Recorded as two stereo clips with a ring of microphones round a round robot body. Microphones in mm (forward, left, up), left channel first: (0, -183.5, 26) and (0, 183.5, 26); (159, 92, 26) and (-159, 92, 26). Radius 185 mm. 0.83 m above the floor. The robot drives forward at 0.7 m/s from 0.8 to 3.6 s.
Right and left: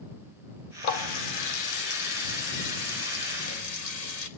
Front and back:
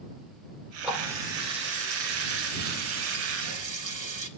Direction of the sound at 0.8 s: 90° right.